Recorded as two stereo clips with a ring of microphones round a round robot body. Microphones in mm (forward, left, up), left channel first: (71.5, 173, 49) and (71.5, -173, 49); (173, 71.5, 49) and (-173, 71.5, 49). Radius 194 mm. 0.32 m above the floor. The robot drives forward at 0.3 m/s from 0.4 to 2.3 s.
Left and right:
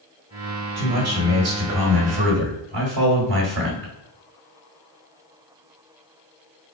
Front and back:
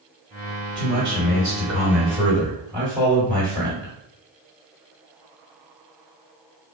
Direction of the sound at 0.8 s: 105° right.